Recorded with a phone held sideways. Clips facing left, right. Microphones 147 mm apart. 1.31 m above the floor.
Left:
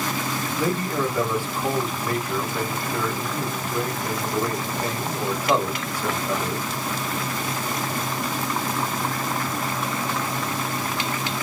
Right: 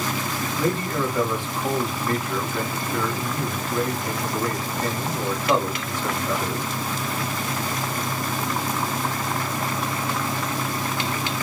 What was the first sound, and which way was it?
A man speaking, 10° left (ahead or behind).